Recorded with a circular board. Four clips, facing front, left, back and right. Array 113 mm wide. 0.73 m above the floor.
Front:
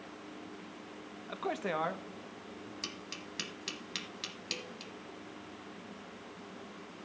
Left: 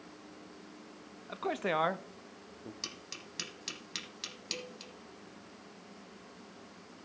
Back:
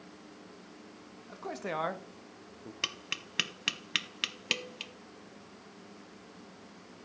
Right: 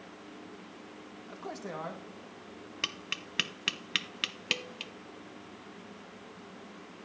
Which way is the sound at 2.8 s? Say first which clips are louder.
Right 6 dB, back 2 dB; 125° right.